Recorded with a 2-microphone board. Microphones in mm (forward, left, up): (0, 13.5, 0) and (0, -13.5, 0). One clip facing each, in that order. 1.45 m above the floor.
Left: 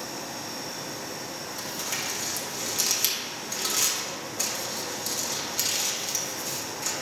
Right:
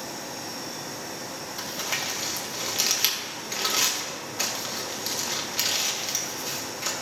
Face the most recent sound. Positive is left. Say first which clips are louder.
# right 3 dB
turn(degrees=-30)  # may be behind; listen again after turning